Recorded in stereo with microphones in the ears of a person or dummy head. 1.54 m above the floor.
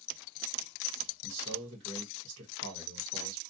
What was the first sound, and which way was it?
A man speaking, 75° right (ahead or behind).